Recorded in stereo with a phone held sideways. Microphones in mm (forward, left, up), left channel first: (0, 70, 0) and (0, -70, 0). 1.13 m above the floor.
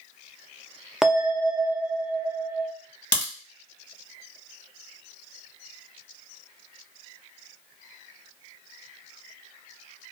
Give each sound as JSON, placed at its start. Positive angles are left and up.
{"t": 1.0, "sound": "a bell", "side_deg": -5, "distance_m": 0.6}
{"t": 3.1, "sound": "a crack", "side_deg": 60, "distance_m": 1.2}